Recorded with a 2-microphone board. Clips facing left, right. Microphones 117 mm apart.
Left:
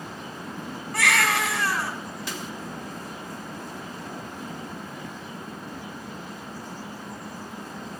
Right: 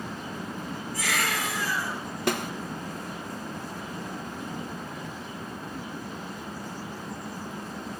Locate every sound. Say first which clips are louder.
0.9 s a baby crying: left 7 dB; 70° left (ahead or behind), 9.5 m
2.3 s a snare drum: right 11 dB; 60° right (ahead or behind), 0.7 m